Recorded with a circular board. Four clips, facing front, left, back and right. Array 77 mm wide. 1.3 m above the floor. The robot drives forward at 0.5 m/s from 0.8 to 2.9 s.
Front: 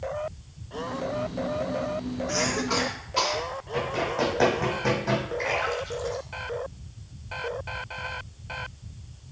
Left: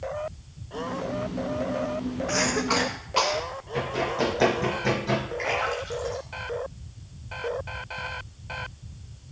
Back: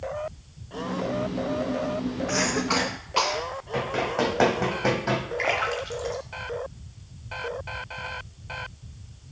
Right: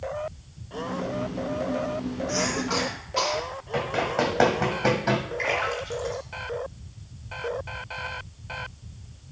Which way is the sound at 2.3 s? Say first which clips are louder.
Left 3 dB, back 1 dB; 135° left.